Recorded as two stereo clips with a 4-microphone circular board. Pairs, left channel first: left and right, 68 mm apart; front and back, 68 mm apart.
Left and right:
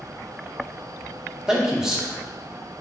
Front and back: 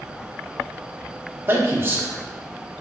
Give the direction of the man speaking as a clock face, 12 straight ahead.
5 o'clock.